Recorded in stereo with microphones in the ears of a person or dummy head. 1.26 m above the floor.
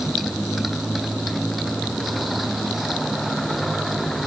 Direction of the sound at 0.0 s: 5° left (ahead or behind).